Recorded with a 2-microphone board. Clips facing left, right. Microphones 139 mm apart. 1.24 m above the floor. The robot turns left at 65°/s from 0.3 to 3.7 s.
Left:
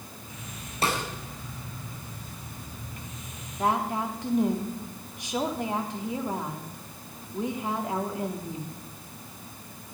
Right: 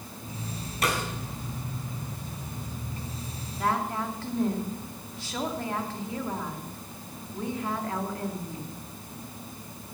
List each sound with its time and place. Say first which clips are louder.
0.8 s a snare drum: left 1 dB; 30° left (ahead or behind), 3 m; by 1.0 s 20° left (ahead or behind), 3 m
3.6 s a woman speaking: left 2 dB; 25° left (ahead or behind), 2.5 m; by 8.7 s 15° left (ahead or behind), 2.5 m